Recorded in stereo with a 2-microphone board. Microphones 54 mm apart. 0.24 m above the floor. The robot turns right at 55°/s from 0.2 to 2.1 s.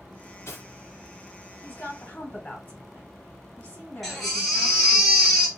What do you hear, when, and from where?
0.2 s cutlery clinking: 60° left (ahead or behind), 1.6 m
1.6 s a woman speaking: 40° left (ahead or behind), 1.8 m; by 5.0 s 25° left (ahead or behind), 1.8 m
4.0 s a baby crying: 5° left (ahead or behind), 2 m